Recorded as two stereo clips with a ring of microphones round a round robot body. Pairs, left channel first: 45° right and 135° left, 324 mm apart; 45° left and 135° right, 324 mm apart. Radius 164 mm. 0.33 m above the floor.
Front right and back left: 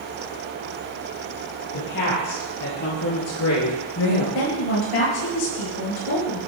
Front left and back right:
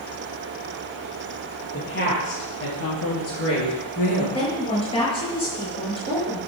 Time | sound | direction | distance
1.7 | a woman speaking | 15° right | 7 m
4.3 | a woman speaking | 30° right | 8 m